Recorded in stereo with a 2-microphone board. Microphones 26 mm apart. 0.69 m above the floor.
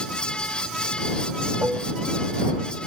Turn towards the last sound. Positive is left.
turn(degrees=-80)